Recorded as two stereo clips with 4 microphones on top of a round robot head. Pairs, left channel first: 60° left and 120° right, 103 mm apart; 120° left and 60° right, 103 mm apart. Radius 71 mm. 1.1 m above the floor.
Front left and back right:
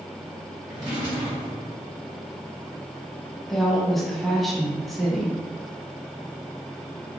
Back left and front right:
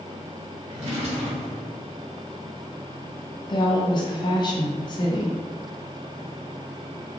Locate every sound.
0.7 s a drawer: 80° right, 1.4 m
3.5 s a woman speaking: 145° left, 0.7 m